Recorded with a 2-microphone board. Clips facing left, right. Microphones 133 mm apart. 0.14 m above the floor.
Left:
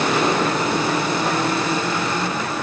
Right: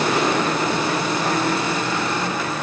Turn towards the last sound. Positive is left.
No sound to turn to.